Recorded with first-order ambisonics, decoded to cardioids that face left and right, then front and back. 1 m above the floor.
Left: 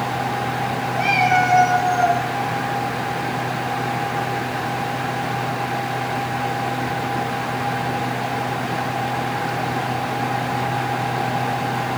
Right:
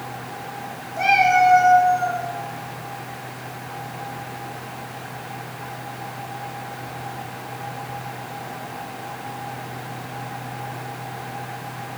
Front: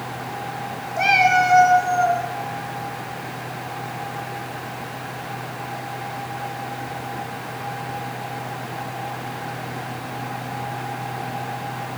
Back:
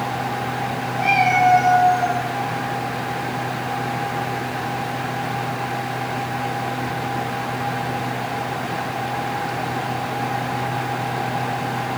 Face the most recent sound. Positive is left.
turn(degrees=45)